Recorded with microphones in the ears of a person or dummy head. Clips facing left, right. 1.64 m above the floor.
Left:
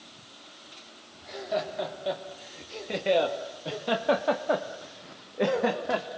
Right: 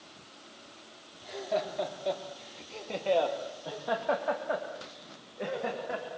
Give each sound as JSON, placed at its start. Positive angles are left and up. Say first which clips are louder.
{"t": 1.2, "sound": "laughter", "louder": "left 1 dB", "side_deg": -5, "distance_m": 3.5}